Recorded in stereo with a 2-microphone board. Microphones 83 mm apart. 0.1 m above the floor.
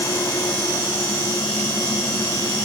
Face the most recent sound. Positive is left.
No sound to turn to.